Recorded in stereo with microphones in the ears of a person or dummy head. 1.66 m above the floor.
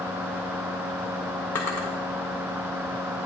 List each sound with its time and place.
1.6 s a drawer: 10° left (ahead or behind), 0.8 m